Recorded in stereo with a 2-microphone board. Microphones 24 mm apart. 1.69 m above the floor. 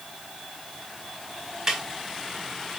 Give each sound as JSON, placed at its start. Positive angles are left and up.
{"t": 1.7, "sound": "a snare drum", "side_deg": -20, "distance_m": 3.0}